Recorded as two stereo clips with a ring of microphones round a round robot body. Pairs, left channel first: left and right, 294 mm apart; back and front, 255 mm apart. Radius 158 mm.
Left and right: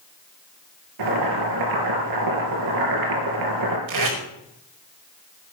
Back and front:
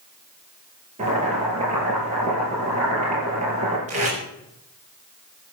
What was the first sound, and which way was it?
Boiling, 70° right.